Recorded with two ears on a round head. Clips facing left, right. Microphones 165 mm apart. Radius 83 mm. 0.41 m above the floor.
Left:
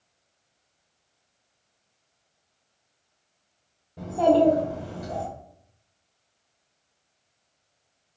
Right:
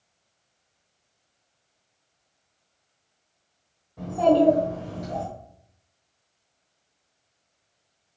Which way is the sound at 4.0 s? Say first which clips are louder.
Even; 30° left (ahead or behind).